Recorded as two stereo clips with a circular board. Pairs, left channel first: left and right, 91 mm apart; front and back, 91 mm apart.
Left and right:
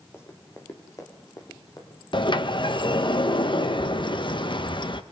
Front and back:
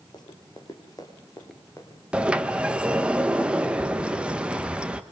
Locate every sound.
0.1 s running footsteps: 30° left, 4 m; by 2.0 s 55° left, 5 m
2.1 s a sliding door: 105° left, 1.3 m